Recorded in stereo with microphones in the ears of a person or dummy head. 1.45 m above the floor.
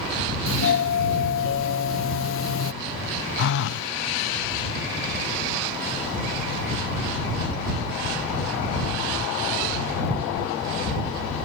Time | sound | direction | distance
0.5 | a doorbell | 70° left (ahead or behind) | ?
3.4 | a phone buzzing | 60° left (ahead or behind) | ?